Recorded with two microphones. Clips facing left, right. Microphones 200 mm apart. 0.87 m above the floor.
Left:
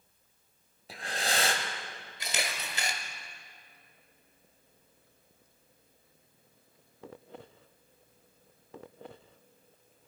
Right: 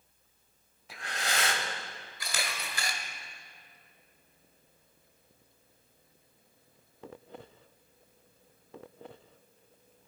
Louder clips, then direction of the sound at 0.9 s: Left 3 dB; 35° left (ahead or behind).